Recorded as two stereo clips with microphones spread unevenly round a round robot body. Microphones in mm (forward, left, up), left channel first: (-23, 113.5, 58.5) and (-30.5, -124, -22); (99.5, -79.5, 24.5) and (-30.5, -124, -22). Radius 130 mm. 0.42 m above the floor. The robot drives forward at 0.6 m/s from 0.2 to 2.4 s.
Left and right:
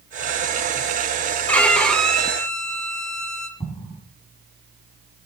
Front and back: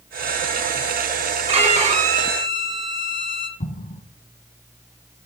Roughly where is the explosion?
Ahead.